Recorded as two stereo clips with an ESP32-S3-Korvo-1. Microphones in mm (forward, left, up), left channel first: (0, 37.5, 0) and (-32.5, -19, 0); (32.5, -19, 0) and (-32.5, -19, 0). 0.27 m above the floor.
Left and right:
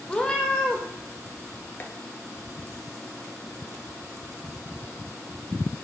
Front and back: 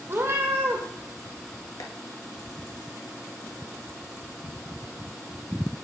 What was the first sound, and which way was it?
A cat meowing, 135° left.